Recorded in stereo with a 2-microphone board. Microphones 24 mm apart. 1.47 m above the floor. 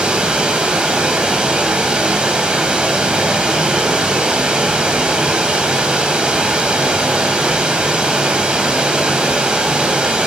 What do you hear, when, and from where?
0.0 s running water: 40° right (ahead or behind), 3 m